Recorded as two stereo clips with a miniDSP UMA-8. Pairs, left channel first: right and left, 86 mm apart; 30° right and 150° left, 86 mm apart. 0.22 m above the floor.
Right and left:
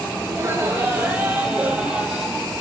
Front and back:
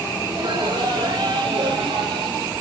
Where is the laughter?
145° left, 3 m; by 2.5 s 175° left, 5.5 m.